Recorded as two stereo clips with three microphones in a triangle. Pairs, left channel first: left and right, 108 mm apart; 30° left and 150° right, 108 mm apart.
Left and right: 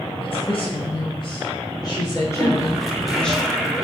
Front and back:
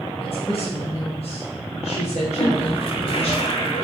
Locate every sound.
0.2 s a woman speaking: 60° left, 5 m; by 3.3 s 5° left, 3.5 m
2.3 s a toilet flushing: straight ahead, 2.5 m